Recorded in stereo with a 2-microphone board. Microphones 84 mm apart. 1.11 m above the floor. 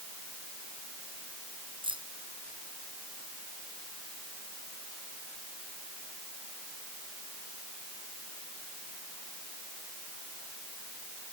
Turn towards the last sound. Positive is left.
turn(degrees=-85)